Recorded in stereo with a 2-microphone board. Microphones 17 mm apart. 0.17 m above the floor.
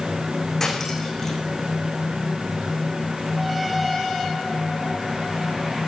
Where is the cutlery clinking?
20° left (ahead or behind), 7.5 m.